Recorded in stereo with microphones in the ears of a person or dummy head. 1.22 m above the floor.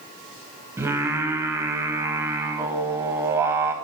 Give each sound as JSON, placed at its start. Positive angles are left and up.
{"t": 0.8, "sound": "singing", "side_deg": -15, "distance_m": 1.1}